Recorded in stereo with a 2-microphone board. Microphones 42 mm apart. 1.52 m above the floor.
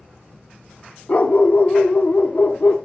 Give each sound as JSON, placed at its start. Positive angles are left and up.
{"t": 1.1, "sound": "a dog barking", "side_deg": 40, "distance_m": 1.2}